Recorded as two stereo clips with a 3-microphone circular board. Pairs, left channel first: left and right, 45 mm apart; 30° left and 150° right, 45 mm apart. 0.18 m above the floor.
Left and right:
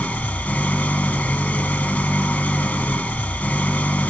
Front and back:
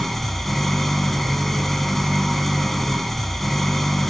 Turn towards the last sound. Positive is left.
turn(degrees=115)